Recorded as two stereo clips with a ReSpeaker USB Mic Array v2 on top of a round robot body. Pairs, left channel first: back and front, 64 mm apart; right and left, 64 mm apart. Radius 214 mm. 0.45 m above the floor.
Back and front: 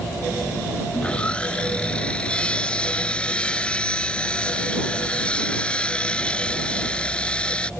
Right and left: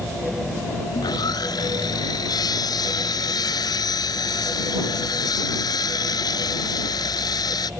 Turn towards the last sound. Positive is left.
turn(degrees=-105)